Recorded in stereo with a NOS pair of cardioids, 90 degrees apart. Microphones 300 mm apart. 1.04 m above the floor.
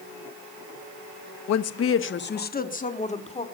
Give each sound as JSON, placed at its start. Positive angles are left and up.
{"t": 1.5, "sound": "a woman speaking", "azimuth_deg": 65, "distance_m": 1.2}